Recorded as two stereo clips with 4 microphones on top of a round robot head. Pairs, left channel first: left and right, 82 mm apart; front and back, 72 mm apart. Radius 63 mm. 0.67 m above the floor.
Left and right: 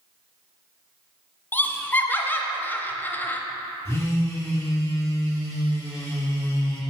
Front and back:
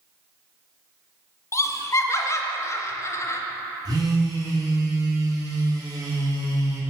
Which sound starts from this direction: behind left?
A phone buzzing, at 3.9 s.